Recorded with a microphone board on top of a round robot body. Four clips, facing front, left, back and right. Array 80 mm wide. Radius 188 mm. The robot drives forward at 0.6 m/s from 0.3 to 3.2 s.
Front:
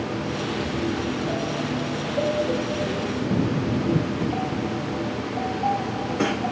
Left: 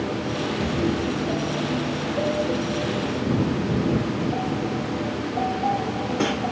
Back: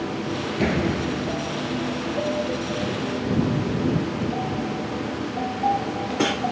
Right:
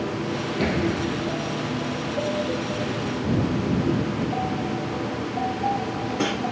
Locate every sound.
0.6 s a door slam: 155° right